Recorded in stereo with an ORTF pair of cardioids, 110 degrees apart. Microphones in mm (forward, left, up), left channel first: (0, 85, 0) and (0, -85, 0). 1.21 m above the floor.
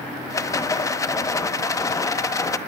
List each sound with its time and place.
0.3 s a rattle: 20° left, 1.0 m